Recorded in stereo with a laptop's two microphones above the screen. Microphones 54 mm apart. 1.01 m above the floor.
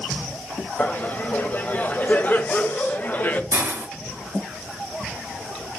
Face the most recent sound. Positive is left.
turn(degrees=-65)  # may be behind; listen again after turning